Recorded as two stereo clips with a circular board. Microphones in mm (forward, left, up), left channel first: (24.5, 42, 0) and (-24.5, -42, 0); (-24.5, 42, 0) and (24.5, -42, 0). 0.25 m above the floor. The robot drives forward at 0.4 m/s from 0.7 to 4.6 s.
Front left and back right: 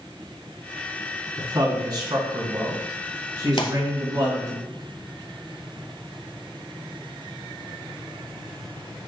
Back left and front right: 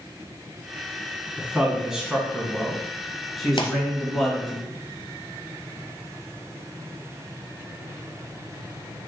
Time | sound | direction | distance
1.4 | a man speaking | 135° right | 2.5 m
3.6 | a pop | 90° left | 0.9 m